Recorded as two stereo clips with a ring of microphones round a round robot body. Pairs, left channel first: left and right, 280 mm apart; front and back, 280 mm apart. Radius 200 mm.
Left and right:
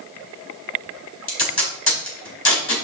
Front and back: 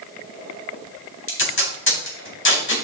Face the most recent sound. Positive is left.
turn(degrees=45)